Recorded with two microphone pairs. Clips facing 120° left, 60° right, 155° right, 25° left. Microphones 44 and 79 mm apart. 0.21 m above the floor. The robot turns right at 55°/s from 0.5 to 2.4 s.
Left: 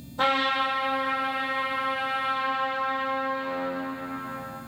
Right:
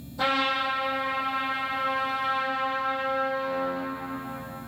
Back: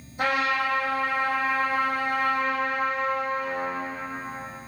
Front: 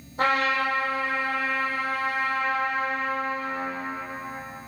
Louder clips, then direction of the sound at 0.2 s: Left 1 dB, front 1 dB; 65° left.